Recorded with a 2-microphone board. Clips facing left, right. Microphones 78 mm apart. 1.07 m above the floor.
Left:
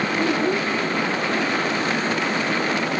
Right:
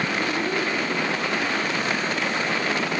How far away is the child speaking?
About 1.1 m.